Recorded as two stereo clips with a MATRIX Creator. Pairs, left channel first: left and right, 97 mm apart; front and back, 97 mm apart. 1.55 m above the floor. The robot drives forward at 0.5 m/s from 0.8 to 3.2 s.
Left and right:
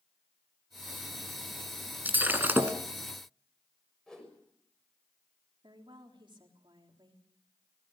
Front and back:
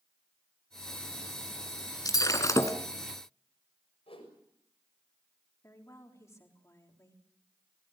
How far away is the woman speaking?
About 3.5 m.